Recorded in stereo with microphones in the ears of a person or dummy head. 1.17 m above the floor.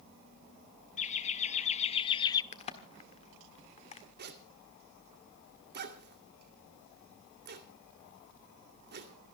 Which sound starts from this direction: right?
A zipper, at 4.2 s.